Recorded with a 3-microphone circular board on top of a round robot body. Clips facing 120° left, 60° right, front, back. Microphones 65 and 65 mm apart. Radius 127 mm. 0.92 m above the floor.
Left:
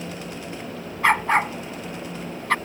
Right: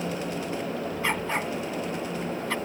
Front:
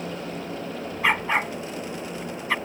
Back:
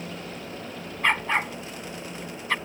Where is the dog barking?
85° left.